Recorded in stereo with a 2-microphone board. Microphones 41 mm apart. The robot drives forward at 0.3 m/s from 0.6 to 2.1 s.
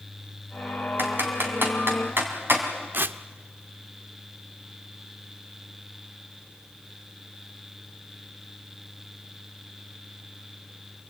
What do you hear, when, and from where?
1.0 s typing on a keyboard: 60° right (ahead or behind), 3.5 m; by 2.6 s 65° right (ahead or behind), 3 m
2.9 s tearing paper: 55° right (ahead or behind), 0.5 m